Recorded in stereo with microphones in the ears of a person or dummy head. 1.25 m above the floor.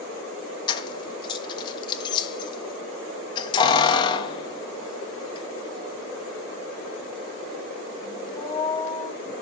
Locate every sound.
0.7 s keys jangling: 30° left (ahead or behind), 1.1 m